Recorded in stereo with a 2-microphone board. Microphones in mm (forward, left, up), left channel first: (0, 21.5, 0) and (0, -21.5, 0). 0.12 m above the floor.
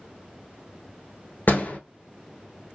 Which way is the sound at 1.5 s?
50° left (ahead or behind).